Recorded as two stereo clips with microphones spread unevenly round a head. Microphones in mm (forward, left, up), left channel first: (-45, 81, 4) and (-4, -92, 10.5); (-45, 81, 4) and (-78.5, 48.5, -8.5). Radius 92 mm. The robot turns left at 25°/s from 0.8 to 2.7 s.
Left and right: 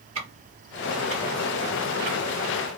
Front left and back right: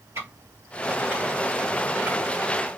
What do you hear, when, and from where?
0.1 s ticking: 80° right, 1.4 m; by 2.2 s 115° right, 1.4 m